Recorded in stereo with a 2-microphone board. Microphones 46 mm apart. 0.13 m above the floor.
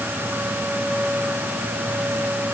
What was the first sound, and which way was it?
Only background noise.